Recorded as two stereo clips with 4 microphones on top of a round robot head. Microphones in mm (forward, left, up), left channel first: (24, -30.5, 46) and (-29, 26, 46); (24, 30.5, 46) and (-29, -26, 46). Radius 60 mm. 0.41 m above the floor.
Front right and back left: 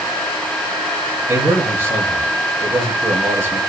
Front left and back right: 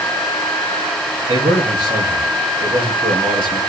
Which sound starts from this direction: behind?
A man speaking, at 1.3 s.